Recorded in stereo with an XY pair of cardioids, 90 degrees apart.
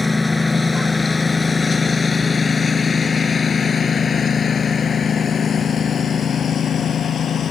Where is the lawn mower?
20° left; by 7.5 s 60° left.